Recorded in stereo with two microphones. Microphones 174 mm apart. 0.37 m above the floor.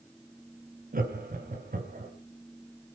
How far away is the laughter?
About 3 m.